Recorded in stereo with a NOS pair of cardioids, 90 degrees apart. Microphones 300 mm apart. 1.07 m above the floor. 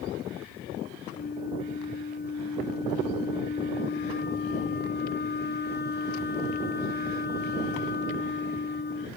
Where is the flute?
30° left.